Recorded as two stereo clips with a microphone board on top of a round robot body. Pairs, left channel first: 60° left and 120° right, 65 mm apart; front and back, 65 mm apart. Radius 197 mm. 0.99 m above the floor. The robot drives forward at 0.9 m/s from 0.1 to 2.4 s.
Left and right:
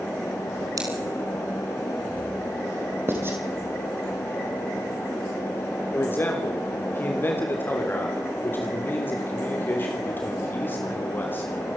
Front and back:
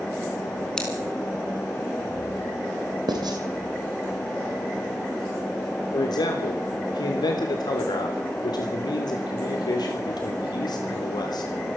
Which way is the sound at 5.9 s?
Straight ahead.